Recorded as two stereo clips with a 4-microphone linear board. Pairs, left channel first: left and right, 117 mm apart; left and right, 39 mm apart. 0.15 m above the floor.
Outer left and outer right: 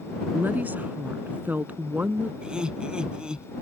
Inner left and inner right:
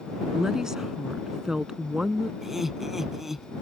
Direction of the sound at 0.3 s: 15° right (ahead or behind).